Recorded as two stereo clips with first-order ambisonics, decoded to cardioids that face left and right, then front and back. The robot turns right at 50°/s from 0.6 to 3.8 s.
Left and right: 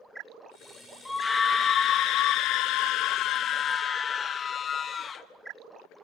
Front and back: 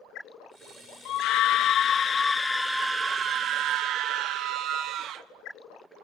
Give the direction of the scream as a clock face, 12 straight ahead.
12 o'clock.